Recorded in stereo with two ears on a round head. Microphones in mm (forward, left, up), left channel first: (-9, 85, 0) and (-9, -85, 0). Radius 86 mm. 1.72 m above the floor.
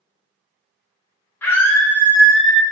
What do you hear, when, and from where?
1.4 s a scream: 10° left (ahead or behind), 1.0 m; by 2.6 s centre (ahead or behind), 0.5 m